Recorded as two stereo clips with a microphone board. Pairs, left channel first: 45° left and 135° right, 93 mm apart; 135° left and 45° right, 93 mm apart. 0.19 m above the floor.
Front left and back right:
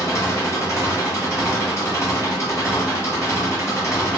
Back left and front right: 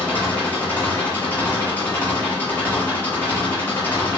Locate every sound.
0.0 s an engine running: 75° left, 1.6 m